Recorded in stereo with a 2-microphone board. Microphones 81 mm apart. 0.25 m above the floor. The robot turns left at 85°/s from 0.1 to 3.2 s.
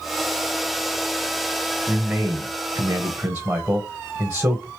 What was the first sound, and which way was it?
A man speaking, 10° right (ahead or behind).